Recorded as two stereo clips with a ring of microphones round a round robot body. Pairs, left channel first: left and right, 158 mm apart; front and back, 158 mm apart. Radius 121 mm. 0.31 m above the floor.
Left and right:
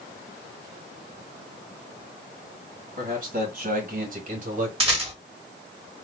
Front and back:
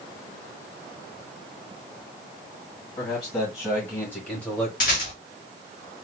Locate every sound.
3.0 s a man speaking: 70° right, 2 m; by 4.7 s 85° right, 1.4 m
4.8 s a rattle: 40° right, 2 m